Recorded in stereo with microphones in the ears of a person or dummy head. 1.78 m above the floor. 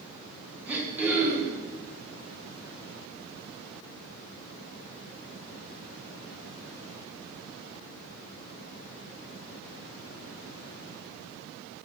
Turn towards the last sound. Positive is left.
turn(degrees=-5)  # may be behind; listen again after turning